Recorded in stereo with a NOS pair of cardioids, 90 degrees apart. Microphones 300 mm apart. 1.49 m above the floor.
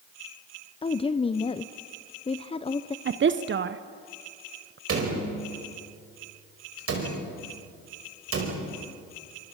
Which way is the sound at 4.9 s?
50° right.